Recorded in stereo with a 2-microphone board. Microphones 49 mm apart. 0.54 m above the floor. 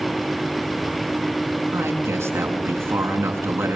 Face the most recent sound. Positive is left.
turn(degrees=-75)  # may be behind; listen again after turning